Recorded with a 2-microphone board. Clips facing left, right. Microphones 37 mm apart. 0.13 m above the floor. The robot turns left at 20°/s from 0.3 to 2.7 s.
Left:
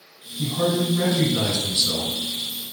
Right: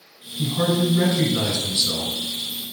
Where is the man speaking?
5° right (ahead or behind), 1.4 m; by 2.1 s 15° right (ahead or behind), 1.4 m.